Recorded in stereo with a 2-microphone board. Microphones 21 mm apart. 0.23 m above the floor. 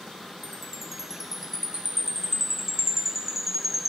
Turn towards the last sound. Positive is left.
turn(degrees=-15)  # may be behind; listen again after turning